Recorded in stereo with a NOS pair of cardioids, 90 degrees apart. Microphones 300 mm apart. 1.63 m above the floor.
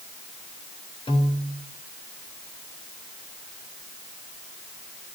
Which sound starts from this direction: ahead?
A piano, at 1.1 s.